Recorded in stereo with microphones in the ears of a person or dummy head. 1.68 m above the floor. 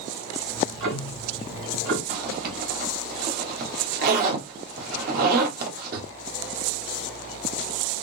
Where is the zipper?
55° right (ahead or behind), 1.1 m.